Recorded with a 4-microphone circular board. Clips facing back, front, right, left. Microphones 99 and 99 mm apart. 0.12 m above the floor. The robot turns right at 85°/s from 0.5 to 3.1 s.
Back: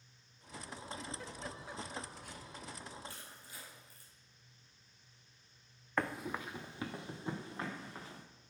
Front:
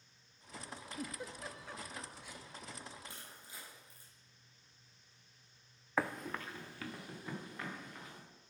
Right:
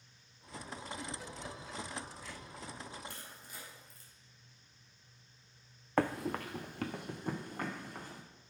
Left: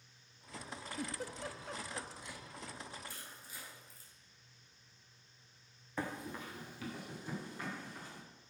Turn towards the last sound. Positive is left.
turn(degrees=-120)